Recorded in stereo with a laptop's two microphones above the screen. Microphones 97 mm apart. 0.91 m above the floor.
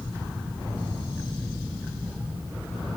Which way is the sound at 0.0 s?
25° right (ahead or behind).